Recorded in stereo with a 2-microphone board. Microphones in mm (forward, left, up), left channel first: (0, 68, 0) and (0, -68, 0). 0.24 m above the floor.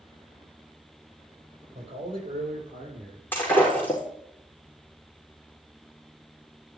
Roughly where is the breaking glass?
Centre.